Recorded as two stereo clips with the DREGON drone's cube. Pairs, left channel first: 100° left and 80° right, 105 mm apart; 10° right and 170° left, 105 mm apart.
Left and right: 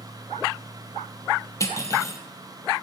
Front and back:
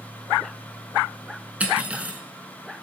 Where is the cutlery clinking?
105° left, 0.8 m.